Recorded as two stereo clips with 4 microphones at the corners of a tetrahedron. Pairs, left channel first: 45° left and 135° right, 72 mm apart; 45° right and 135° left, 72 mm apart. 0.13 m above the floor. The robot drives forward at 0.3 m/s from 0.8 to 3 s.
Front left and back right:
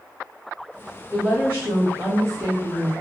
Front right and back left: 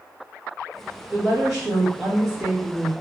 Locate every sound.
1.1 s a woman speaking: 140° right, 1.3 m; by 2.9 s 160° right, 1.6 m